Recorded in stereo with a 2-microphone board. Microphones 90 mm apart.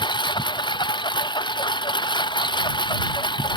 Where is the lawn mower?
60° left (ahead or behind).